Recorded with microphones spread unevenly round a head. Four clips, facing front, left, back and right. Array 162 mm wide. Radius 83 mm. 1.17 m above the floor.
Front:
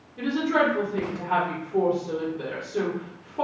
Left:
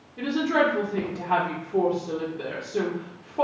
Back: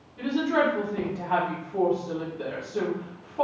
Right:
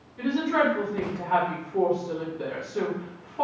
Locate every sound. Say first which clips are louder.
0.2 s a woman speaking: left 1 dB, front 1 dB; 60° left, 1.3 m